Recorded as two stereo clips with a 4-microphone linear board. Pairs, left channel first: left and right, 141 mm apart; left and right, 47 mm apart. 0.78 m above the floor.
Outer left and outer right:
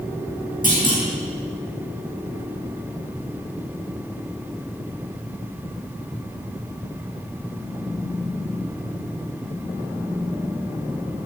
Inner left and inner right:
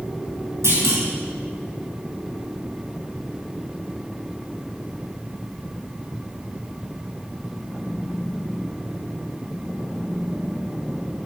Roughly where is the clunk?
Right.